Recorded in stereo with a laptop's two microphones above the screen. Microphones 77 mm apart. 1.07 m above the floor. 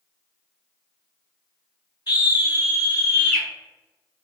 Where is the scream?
60° left (ahead or behind), 1.8 m; by 3.5 s 20° left (ahead or behind), 1.5 m.